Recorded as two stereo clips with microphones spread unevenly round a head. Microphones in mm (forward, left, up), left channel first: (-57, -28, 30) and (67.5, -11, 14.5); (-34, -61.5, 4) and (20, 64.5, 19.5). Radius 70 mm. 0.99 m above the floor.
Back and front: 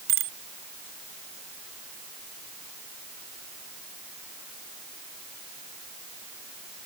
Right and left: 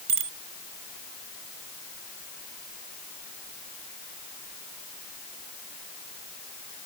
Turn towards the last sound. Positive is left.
turn(degrees=20)